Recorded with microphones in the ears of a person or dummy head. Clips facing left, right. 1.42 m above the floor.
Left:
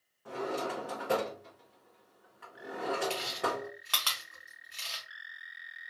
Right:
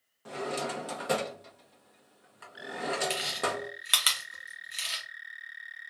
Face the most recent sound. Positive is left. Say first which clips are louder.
# right 1 dB
turn(degrees=-15)  # may be behind; listen again after turning